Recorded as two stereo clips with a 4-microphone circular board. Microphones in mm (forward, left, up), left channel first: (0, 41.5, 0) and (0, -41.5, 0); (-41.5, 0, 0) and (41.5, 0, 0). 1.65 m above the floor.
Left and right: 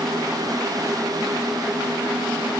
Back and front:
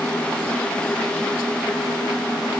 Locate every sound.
Only background noise.